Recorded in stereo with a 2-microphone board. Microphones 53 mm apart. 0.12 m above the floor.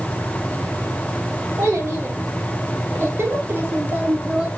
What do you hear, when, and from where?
1.6 s a child speaking: 60° right (ahead or behind), 2 m; by 4.5 s 20° right (ahead or behind), 1.0 m